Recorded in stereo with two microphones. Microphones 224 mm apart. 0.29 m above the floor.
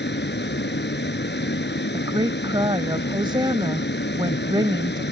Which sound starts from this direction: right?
A woman speaking, at 1.9 s.